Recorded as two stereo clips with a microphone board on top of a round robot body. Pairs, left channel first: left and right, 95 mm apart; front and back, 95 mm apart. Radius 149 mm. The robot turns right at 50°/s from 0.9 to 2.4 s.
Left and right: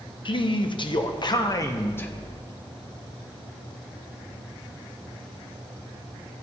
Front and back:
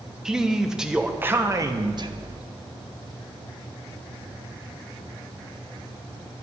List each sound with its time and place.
0.2 s a man speaking: 100° left, 0.9 m; by 2.1 s 160° left, 0.9 m